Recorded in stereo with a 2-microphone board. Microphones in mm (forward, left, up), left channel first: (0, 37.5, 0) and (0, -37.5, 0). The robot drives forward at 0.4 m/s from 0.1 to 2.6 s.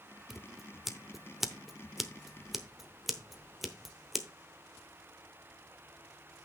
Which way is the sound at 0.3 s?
5° right (ahead or behind).